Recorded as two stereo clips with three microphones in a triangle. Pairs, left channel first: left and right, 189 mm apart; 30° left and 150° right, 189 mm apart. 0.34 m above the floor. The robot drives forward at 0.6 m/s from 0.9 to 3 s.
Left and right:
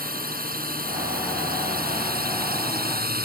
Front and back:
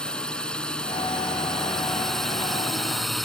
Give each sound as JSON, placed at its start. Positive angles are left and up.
{"t": 0.0, "sound": "a drone", "azimuth_deg": -55}